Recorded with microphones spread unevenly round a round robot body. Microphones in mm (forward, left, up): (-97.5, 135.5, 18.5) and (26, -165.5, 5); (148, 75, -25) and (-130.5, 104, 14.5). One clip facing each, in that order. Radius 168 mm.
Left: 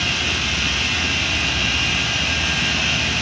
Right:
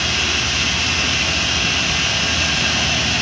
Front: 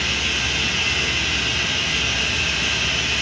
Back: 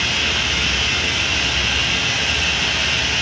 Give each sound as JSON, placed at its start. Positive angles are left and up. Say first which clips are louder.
{"t": 0.0, "sound": "running water", "louder": "right 1 dB, back 2 dB", "azimuth_deg": -95, "distance_m": 8.0}